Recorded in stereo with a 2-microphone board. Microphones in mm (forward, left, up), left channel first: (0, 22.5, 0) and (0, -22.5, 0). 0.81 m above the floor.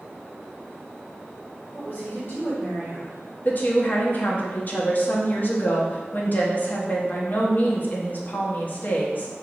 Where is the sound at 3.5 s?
40° left (ahead or behind), 0.7 m.